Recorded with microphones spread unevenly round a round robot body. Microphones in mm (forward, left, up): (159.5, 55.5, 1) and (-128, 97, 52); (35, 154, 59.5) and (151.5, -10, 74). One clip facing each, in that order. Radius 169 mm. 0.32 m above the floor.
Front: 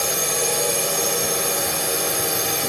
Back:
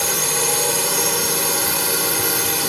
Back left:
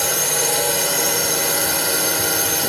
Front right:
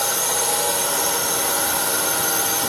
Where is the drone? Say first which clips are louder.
Even, back left 2 dB; 110° left.